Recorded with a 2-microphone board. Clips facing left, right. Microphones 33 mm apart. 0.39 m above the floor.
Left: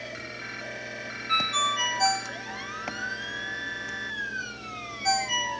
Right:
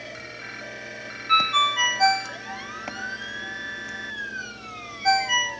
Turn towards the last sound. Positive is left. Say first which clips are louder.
# right 6 dB
turn(degrees=-30)  # may be behind; listen again after turning